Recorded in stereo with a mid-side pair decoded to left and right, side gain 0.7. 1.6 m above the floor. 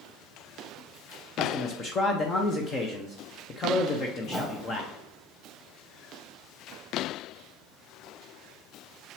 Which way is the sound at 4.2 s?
10° left.